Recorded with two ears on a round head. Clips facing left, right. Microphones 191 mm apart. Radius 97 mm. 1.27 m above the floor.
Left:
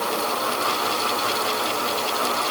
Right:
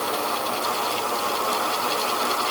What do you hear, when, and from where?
Only background noise.